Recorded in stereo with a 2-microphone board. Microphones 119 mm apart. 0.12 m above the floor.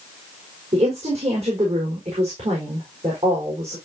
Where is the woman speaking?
60° right (ahead or behind), 5.5 m.